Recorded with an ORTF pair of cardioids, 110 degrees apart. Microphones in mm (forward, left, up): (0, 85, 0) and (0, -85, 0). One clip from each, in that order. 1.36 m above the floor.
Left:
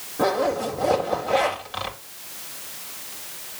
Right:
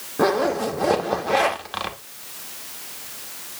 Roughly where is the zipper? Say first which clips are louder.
Right 2 dB; ahead right.